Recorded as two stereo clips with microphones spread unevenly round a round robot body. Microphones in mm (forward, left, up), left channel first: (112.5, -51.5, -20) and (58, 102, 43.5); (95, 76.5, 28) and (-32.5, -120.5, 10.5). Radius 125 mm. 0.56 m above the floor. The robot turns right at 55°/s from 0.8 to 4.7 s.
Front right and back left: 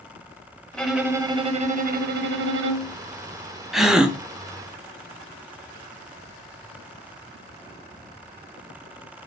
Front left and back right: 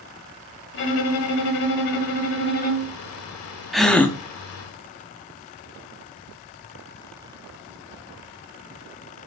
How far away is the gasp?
About 1.0 m.